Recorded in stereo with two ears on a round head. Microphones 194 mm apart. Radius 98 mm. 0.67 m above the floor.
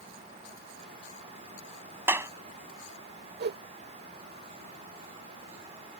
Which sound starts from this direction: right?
A whoosh, at 3.4 s.